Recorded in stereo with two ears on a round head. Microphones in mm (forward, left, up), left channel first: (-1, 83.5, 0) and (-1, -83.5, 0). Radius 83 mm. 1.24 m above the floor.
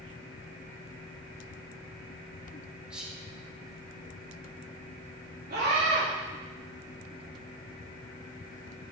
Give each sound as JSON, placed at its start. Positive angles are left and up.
{"t": 2.9, "sound": "whispering", "side_deg": -5, "distance_m": 2.0}
{"t": 5.5, "sound": "a scream", "side_deg": -55, "distance_m": 3.0}